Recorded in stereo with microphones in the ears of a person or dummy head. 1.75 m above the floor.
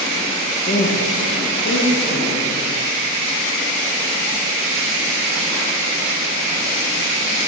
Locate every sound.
0.7 s a woman speaking: 30° left (ahead or behind), 0.6 m; by 2.6 s 40° left (ahead or behind), 1.7 m